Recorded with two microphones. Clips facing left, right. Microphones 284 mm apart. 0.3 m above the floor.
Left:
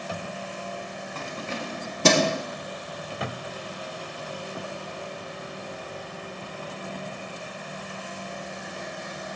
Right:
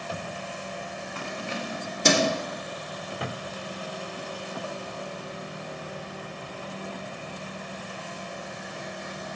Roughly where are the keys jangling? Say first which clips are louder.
Even; left.